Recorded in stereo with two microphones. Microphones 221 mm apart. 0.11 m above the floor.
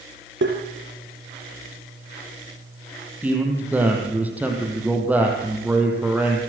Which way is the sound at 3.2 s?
5° right (ahead or behind).